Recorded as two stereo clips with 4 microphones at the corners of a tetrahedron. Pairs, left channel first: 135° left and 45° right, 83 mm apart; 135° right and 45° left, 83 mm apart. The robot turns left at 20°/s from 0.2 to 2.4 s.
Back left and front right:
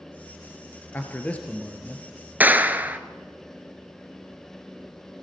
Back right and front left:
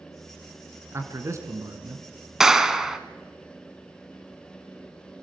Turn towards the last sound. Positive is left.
turn(degrees=-30)